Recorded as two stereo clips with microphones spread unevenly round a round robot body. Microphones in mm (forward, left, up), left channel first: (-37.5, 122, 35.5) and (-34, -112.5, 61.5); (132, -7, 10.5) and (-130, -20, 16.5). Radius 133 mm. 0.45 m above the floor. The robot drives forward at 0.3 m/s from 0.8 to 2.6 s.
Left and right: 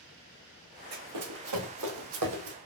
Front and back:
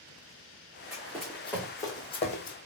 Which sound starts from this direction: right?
Running footsteps, at 0.9 s.